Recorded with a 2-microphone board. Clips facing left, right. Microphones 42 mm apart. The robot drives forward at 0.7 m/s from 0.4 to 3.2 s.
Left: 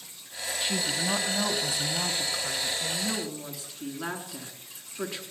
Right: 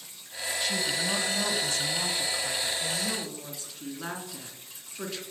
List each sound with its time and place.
0.6 s a woman speaking: 20° left (ahead or behind), 1.1 m; by 5.2 s 10° left (ahead or behind), 2.5 m